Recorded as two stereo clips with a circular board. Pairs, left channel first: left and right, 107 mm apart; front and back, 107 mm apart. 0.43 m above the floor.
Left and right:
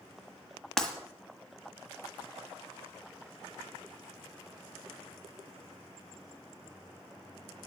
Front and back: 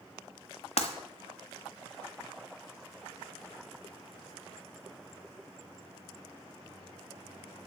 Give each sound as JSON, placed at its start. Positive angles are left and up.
{"t": 0.8, "sound": "breaking glass", "azimuth_deg": 5, "distance_m": 1.5}